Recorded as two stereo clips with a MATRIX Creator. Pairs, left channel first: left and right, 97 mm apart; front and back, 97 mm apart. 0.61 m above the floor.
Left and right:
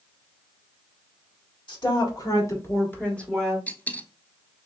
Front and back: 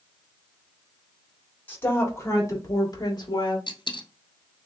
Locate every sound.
1.7 s a woman speaking: 70° left, 1.7 m; by 3.6 s straight ahead, 1.4 m
3.7 s a dropped coin: 20° left, 1.0 m